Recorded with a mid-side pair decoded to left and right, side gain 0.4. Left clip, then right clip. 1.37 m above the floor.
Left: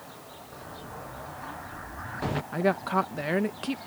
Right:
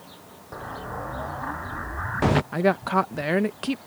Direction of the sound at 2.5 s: 35° right.